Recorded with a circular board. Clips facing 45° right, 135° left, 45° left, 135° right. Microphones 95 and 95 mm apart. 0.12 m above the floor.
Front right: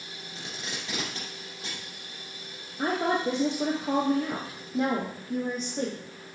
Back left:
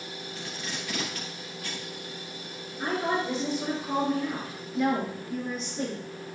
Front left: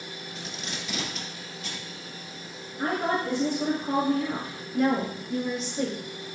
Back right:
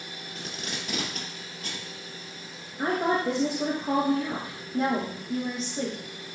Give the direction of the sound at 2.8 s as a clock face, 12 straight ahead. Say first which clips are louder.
Front right 2 dB, back right 1 dB; 2 o'clock.